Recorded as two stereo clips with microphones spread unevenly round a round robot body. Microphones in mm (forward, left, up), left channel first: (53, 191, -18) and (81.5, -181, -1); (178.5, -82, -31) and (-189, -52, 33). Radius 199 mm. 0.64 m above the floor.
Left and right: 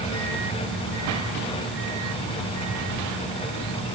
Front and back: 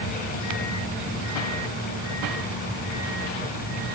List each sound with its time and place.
Only background noise.